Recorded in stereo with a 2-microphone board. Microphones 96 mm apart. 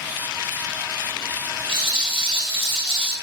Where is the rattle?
75° right (ahead or behind), 3.5 m.